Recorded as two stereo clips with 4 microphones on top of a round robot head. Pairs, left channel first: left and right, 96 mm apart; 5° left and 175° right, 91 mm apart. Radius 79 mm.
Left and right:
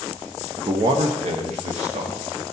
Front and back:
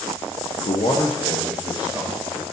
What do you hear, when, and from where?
0.6 s a man speaking: 25° right, 0.7 m; by 2.2 s 110° right, 1.6 m